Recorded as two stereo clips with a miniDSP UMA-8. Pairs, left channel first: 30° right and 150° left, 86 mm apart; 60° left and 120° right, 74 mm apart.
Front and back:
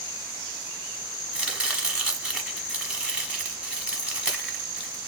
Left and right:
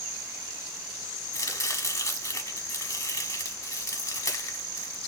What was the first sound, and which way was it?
Chopping, 75° left.